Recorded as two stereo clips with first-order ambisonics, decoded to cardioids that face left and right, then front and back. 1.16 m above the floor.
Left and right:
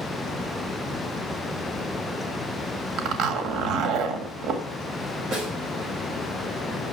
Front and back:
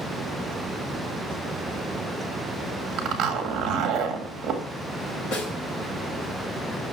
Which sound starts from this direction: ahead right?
A snare drum, at 5.3 s.